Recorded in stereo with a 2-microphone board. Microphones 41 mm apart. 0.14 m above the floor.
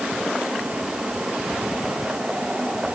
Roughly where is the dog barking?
No dog barking in this recording.